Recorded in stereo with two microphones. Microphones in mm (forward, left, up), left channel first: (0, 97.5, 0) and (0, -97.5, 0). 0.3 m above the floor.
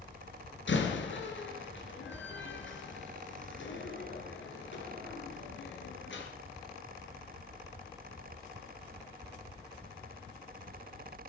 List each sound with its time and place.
0.7 s a door slam: 75° left (ahead or behind), 3 m